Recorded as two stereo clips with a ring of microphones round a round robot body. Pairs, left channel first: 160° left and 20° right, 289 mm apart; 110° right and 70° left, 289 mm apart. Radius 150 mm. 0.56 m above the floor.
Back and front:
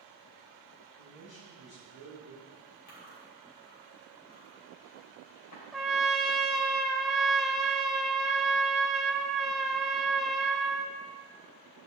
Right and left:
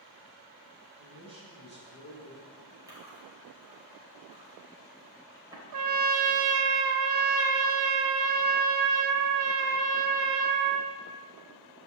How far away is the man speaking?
About 4.5 m.